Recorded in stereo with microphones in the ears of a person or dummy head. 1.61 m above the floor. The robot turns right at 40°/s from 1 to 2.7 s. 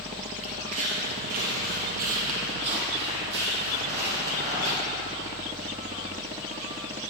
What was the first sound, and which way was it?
Footsteps, 20° right (ahead or behind).